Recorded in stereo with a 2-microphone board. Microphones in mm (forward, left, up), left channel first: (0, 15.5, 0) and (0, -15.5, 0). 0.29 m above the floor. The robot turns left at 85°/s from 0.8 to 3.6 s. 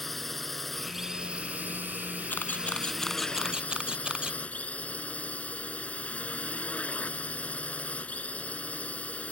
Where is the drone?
5° left; by 9.3 s 125° left.